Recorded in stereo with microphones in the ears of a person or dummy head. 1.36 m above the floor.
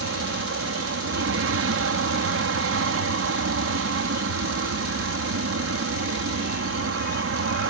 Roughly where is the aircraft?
Right.